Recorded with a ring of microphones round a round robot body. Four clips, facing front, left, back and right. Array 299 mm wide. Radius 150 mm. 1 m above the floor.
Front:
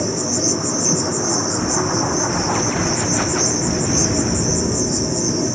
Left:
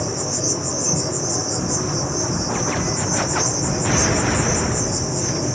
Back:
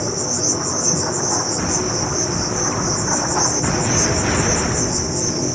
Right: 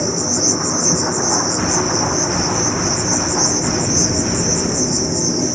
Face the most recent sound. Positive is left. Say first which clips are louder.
# right 5 dB, front 2 dB
turn(degrees=-55)